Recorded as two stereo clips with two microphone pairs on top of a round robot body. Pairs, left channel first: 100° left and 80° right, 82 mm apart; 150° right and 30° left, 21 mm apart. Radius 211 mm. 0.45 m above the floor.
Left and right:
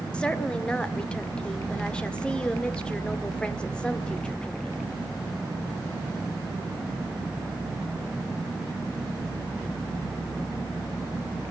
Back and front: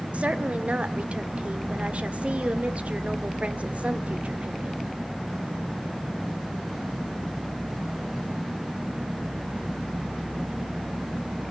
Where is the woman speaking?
25° left, 1.9 m.